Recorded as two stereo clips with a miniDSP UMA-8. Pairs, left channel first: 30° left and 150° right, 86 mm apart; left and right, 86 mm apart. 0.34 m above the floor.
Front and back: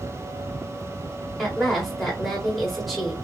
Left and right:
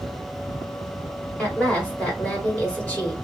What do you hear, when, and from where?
1.4 s a woman speaking: 120° left, 1.3 m